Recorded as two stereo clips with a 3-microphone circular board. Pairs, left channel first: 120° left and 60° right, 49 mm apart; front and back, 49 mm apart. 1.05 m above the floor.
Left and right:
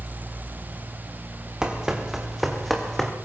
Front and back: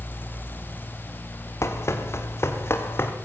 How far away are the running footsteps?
About 3 m.